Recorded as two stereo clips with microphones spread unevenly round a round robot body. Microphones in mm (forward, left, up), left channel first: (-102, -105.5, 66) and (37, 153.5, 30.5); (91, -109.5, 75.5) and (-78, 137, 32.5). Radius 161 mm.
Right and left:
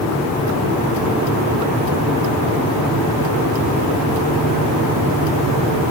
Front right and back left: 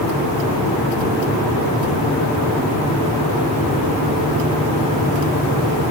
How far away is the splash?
I don't hear a splash.